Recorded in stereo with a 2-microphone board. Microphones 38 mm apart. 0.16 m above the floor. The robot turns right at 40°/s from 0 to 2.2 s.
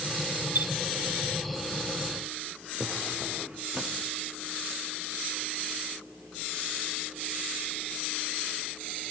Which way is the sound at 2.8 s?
30° right (ahead or behind).